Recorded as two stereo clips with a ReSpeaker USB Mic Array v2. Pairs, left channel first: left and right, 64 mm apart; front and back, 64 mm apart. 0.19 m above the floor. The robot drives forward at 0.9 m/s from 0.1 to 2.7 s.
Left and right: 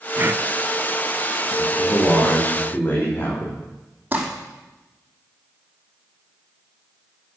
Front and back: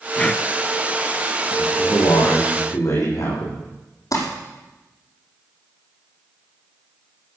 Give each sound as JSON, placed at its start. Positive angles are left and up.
{"t": 0.2, "sound": "breathing", "azimuth_deg": -55, "distance_m": 0.8}
{"t": 1.6, "sound": "a man speaking", "azimuth_deg": 25, "distance_m": 10.0}
{"t": 4.1, "sound": "crumpling", "azimuth_deg": -25, "distance_m": 5.5}